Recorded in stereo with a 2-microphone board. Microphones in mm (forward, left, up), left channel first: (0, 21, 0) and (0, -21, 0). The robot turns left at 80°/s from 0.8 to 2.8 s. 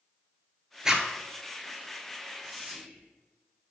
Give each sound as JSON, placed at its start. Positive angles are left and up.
{"t": 0.8, "sound": "a zipper", "side_deg": -10, "distance_m": 0.5}
{"t": 2.4, "sound": "whispering", "azimuth_deg": -40, "distance_m": 1.9}